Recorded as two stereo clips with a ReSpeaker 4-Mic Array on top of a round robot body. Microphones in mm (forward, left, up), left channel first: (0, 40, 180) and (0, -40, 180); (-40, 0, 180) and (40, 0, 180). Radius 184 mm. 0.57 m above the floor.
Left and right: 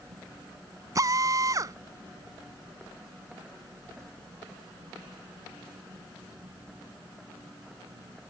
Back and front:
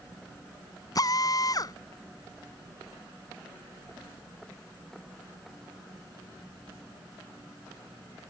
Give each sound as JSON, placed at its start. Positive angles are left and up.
{"t": 0.9, "sound": "a drill", "azimuth_deg": -140}